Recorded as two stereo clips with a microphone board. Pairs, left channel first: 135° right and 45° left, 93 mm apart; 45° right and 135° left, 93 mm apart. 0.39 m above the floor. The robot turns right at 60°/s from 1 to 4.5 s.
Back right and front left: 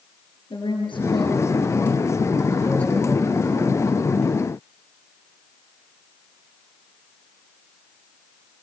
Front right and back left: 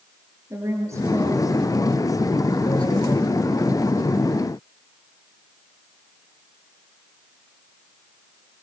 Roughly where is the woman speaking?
Behind.